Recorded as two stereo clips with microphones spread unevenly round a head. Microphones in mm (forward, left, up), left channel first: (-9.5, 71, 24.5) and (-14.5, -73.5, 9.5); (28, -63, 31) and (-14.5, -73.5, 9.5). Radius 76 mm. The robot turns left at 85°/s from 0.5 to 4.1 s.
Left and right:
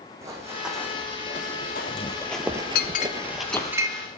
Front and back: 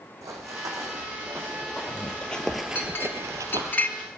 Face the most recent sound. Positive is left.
turn(degrees=-45)